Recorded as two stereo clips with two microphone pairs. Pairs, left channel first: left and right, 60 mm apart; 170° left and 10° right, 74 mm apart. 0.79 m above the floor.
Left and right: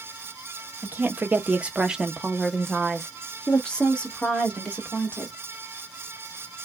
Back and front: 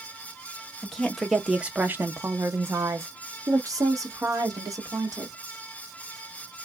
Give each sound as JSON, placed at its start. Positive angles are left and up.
{"t": 0.8, "sound": "a woman speaking", "azimuth_deg": -110, "distance_m": 1.0}